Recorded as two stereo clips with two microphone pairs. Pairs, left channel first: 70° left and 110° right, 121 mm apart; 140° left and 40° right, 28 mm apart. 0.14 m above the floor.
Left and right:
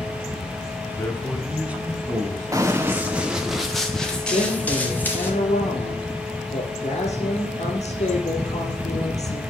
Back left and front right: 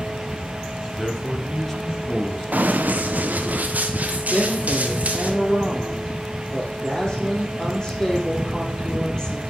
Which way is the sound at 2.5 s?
50° right.